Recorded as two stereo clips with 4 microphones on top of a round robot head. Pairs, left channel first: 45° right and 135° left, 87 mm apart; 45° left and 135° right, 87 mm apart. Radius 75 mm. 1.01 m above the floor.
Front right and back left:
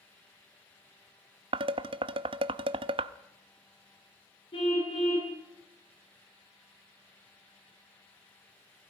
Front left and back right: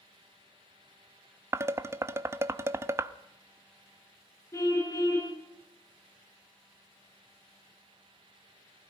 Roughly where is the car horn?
Ahead.